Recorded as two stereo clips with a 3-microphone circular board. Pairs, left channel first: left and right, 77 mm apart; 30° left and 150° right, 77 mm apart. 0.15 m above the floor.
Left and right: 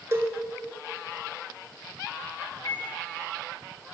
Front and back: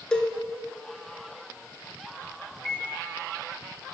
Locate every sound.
0.1 s a cowbell: 45° right, 0.7 m
2.5 s a microwave: 120° left, 1.9 m